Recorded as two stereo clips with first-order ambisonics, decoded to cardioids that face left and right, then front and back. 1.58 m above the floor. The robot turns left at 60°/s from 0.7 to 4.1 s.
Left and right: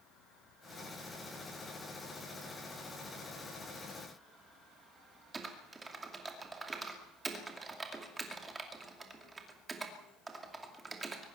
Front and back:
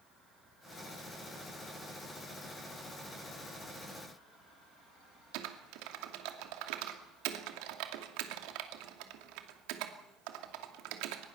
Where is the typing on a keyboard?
165° right, 2.5 m.